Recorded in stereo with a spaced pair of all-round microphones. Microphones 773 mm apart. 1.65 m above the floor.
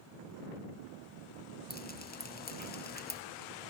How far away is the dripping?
About 0.6 m.